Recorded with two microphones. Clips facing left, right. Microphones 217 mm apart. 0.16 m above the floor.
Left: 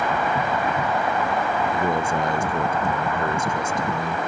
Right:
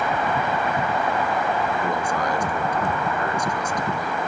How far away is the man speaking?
About 1.9 m.